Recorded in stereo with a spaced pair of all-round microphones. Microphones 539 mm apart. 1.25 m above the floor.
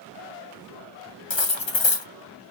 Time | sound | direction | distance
1.3 | cutlery clinking | 60° left (ahead or behind) | 0.7 m